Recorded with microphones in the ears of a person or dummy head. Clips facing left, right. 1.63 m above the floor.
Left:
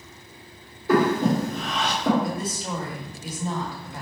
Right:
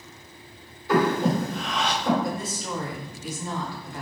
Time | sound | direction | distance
0.9 | breathing | 45° left (ahead or behind) | 1.7 m
2.2 | a woman speaking | 20° left (ahead or behind) | 1.6 m